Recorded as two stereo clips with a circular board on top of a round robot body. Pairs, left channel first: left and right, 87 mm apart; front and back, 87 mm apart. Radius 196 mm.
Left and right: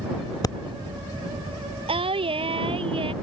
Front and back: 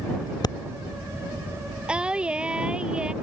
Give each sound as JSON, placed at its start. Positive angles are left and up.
{"t": 0.4, "sound": "breathing", "azimuth_deg": 40}
{"t": 1.9, "sound": "singing", "azimuth_deg": -100}